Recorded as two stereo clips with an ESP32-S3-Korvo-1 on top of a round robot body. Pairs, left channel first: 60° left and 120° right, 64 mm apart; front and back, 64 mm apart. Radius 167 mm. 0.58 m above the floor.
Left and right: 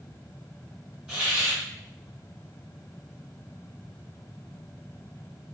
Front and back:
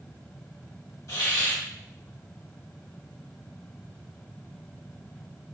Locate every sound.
1.1 s a hiss: 45° right, 0.9 m